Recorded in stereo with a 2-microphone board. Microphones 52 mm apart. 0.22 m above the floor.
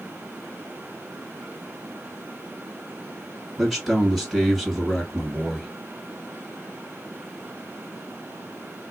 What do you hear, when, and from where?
3.6 s a man speaking: centre (ahead or behind), 2.0 m